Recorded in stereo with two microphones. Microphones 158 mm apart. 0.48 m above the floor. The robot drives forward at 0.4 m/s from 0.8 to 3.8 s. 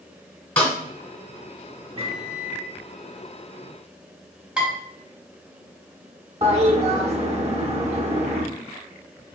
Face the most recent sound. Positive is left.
turn(degrees=-40)  # may be behind; listen again after turning